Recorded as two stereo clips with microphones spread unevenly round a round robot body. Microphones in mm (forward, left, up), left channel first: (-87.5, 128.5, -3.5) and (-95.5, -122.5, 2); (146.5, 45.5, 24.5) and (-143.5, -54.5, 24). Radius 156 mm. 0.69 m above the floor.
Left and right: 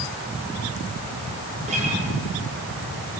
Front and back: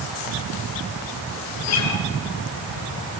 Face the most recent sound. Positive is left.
turn(degrees=-20)